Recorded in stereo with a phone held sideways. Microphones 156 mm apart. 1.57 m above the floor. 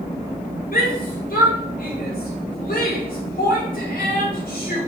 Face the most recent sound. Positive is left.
turn(degrees=70)  # may be behind; listen again after turning